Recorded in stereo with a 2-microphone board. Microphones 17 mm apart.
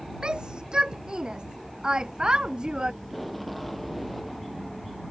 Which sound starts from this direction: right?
A shout, at 0.2 s.